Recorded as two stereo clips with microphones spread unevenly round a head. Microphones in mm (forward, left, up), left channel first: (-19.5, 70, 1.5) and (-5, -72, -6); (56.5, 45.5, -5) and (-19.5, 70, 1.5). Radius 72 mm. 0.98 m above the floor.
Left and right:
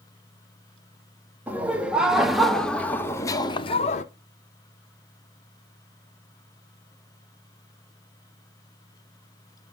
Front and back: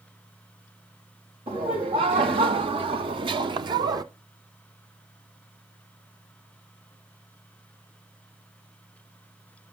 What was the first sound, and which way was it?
Laughter, 160° right.